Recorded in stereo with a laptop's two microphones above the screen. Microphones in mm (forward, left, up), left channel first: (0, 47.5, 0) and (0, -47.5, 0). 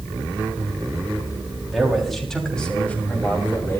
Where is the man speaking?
Centre (ahead or behind), 6 m; by 3.8 s 30° left (ahead or behind), 5 m.